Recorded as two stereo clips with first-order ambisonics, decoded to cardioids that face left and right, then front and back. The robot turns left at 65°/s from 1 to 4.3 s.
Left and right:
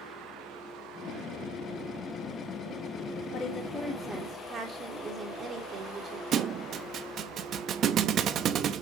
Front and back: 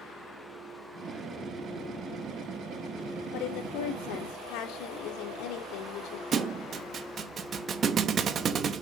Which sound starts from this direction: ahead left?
A woman speaking, at 3.3 s.